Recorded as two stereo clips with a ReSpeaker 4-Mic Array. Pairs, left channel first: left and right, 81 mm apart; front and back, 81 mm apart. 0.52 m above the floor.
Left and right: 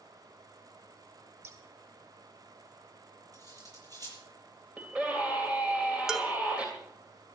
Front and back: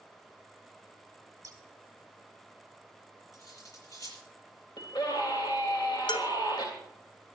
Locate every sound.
1.4 s scissors: 135° right, 3 m
3.3 s cutlery clinking: 50° right, 8 m
4.8 s a scream: 15° right, 2.5 m
6.1 s dishes clattering: 5° right, 2 m